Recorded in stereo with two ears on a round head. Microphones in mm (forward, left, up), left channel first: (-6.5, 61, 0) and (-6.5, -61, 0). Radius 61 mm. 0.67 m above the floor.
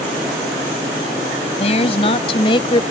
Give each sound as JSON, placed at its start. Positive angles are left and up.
{"t": 1.6, "sound": "a woman speaking", "side_deg": 45}